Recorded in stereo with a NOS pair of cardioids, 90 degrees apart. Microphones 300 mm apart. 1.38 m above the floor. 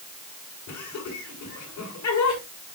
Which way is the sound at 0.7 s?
65° left.